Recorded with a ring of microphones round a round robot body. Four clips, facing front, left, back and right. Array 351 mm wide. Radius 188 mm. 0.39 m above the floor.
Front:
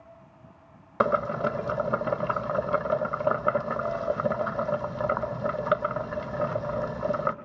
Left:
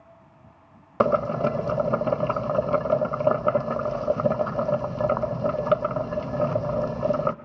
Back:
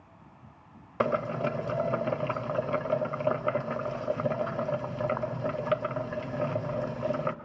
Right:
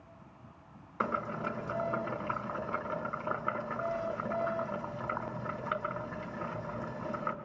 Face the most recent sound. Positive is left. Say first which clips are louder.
# left 13 dB, front 3 dB
turn(degrees=80)